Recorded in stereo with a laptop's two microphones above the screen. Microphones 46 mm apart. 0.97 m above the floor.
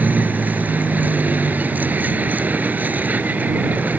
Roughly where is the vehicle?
Right.